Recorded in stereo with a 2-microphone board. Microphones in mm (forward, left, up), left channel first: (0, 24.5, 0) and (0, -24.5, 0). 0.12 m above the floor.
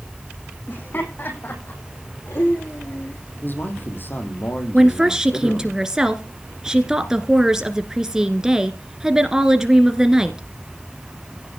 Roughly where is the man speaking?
Left.